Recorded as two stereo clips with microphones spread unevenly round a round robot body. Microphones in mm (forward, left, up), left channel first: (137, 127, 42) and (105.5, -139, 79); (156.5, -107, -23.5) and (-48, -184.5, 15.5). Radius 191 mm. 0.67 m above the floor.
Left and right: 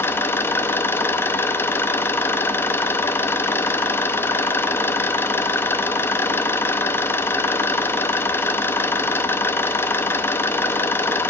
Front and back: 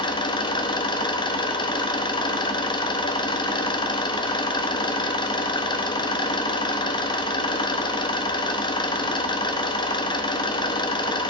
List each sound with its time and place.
0.0 s an engine running: 25° left, 0.9 m